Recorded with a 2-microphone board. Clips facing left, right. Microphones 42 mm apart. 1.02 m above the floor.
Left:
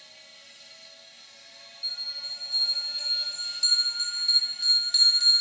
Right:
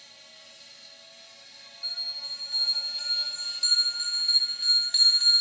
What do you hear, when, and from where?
0.0 s an insect: 30° left (ahead or behind), 1.6 m
1.8 s a bell: 20° right (ahead or behind), 0.6 m